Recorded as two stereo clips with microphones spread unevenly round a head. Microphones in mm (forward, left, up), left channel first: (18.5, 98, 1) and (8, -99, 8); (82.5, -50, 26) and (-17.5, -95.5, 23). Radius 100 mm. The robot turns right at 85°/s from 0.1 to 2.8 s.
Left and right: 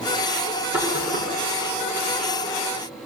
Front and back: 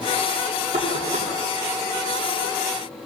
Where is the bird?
No bird in this recording.